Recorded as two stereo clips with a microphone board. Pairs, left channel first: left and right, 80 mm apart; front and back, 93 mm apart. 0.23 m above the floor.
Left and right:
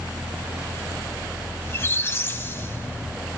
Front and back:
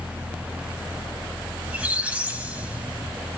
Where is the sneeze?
I don't hear a sneeze.